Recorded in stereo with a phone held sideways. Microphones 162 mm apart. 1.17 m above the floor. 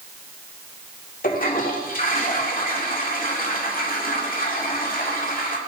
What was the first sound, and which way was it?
A toilet flushing, 60° left (ahead or behind).